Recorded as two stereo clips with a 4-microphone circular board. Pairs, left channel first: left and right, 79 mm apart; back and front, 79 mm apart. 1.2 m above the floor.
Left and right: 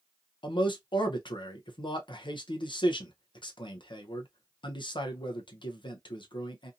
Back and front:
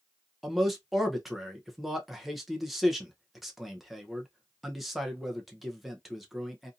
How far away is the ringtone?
I don't hear a ringtone.